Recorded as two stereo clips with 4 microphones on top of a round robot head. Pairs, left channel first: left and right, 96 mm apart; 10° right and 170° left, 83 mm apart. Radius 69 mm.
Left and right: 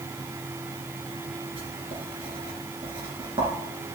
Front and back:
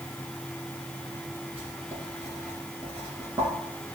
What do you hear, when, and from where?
1.6 s writing: 125° right, 2.5 m